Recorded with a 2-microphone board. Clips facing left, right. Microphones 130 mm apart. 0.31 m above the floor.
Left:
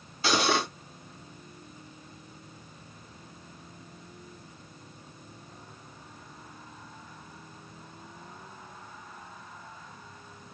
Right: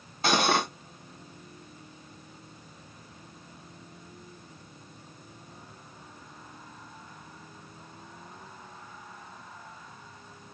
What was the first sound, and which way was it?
Cutlery clinking, 50° right (ahead or behind).